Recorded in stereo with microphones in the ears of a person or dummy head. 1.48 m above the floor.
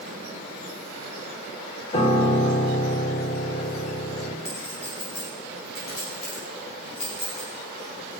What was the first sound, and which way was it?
A piano, 25° left (ahead or behind).